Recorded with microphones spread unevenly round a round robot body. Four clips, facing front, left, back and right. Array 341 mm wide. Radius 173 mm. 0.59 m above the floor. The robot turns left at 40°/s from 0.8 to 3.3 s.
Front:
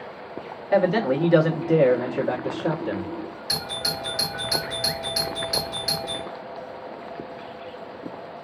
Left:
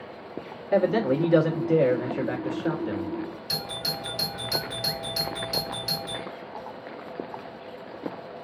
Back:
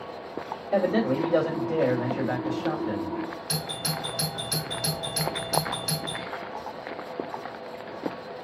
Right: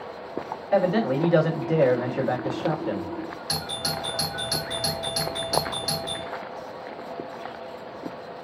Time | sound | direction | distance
0.7 | a man speaking | 25° left | 1.4 m
3.5 | a doorbell | 100° right | 2.5 m